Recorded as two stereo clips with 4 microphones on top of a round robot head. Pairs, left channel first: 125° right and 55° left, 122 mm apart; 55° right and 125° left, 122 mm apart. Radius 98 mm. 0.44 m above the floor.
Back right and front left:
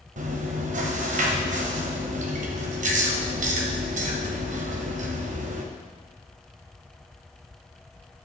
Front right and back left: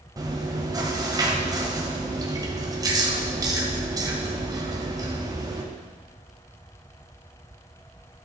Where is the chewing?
65° left, 1.7 m.